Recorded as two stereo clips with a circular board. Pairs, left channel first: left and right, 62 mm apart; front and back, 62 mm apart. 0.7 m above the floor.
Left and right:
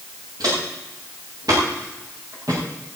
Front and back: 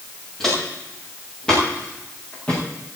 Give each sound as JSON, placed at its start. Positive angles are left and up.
{"t": 0.4, "sound": "footsteps", "azimuth_deg": -85, "distance_m": 7.5}